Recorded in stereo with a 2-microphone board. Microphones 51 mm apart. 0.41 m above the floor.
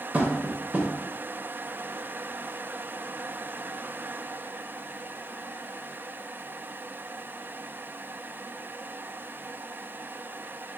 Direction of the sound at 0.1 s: 30° right (ahead or behind).